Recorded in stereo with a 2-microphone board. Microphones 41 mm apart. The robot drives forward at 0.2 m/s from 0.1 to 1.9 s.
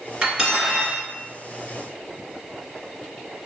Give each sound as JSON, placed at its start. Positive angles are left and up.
{"t": 0.2, "sound": "cutlery clinking", "side_deg": -20, "distance_m": 1.6}